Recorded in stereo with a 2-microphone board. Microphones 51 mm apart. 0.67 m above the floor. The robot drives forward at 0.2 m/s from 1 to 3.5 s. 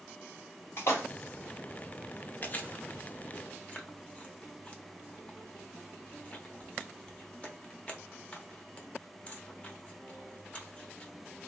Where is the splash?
55° left (ahead or behind), 1.2 m.